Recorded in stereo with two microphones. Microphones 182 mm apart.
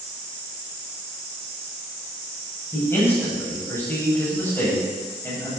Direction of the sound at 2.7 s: 15° left (ahead or behind).